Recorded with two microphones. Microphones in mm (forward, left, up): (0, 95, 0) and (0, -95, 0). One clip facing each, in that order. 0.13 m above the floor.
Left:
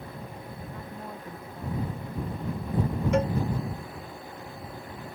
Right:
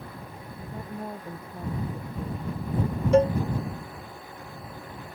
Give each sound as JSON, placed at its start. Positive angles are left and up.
{"t": 0.7, "sound": "a woman speaking", "side_deg": -30}
{"t": 3.1, "sound": "a cowbell", "side_deg": -35}